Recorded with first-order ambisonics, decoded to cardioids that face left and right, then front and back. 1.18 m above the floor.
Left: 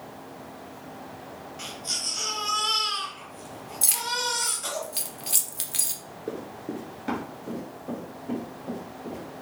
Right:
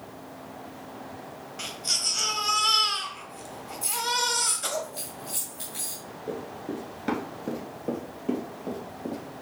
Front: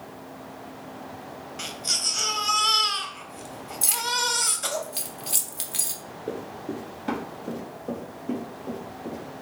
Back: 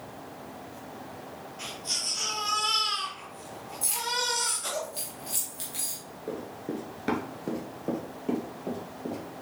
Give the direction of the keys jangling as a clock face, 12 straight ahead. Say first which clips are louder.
Right 1 dB, front 4 dB; 10 o'clock.